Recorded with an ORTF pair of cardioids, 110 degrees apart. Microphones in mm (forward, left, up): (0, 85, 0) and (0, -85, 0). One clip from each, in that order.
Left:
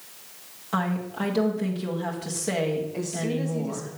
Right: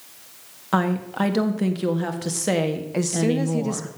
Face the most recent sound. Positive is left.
turn(degrees=-70)